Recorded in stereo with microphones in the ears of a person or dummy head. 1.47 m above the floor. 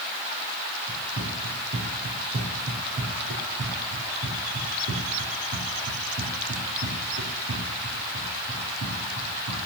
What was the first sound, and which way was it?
Running footsteps, 55° right (ahead or behind).